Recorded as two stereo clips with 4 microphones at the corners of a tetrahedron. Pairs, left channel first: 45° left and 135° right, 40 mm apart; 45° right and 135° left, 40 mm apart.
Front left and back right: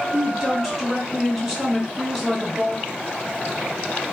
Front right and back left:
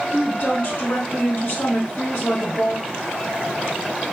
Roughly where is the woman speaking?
Ahead right.